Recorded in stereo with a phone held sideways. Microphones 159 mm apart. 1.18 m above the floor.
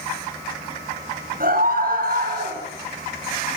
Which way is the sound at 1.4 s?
55° right (ahead or behind).